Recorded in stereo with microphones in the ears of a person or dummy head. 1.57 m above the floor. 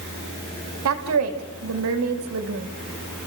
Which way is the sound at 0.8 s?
80° right.